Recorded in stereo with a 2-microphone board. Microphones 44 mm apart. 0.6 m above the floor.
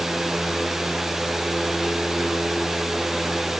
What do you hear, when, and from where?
Only background noise.